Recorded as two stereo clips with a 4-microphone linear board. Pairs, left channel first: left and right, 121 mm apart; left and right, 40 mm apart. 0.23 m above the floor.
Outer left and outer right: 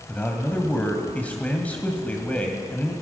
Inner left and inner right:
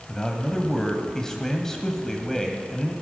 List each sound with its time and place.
0.1 s a man speaking: 15° left (ahead or behind), 1.3 m